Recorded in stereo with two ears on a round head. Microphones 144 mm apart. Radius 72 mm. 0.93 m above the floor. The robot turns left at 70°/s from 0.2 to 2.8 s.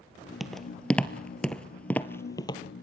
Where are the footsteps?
Centre (ahead or behind), 1.2 m; by 2.6 s 30° left (ahead or behind), 1.3 m.